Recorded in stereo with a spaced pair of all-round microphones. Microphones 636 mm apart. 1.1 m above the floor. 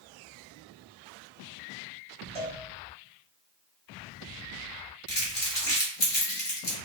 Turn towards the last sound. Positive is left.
turn(degrees=40)  # may be behind; listen again after turning